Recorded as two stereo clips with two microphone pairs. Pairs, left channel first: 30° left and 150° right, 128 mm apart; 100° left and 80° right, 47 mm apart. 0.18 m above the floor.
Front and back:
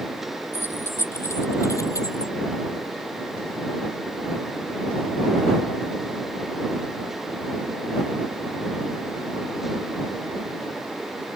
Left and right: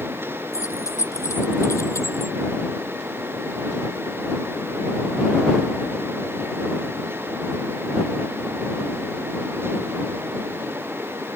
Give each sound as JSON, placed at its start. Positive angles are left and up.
{"t": 0.5, "sound": "keys jangling", "azimuth_deg": 100}